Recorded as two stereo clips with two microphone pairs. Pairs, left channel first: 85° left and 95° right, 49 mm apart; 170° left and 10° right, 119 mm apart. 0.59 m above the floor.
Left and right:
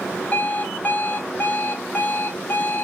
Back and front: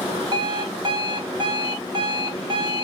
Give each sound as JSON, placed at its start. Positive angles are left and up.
{"t": 0.3, "sound": "an alarm clock", "azimuth_deg": 35, "distance_m": 0.9}